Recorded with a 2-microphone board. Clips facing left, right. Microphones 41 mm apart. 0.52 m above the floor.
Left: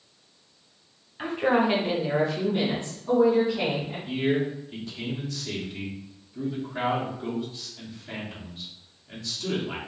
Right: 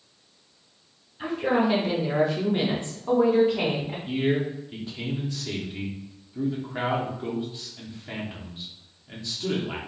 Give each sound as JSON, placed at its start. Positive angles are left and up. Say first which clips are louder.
{"t": 1.2, "sound": "a woman speaking", "louder": "left 1 dB", "side_deg": 50, "distance_m": 1.0}
{"t": 4.1, "sound": "a man speaking", "louder": "even", "side_deg": -20, "distance_m": 1.0}